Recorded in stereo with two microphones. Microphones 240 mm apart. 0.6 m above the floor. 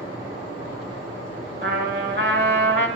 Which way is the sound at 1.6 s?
45° right (ahead or behind).